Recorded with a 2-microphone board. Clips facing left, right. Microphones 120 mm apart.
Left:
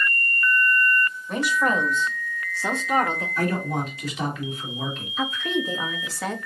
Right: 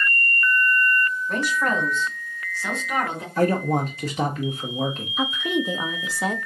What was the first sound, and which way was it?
A woman speaking, 5° left (ahead or behind).